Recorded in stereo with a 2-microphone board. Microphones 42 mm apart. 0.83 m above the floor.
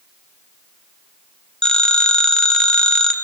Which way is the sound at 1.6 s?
15° left (ahead or behind).